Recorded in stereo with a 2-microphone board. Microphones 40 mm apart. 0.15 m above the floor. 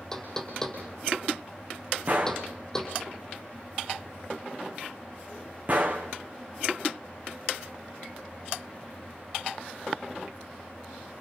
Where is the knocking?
15° left (ahead or behind), 4.5 m.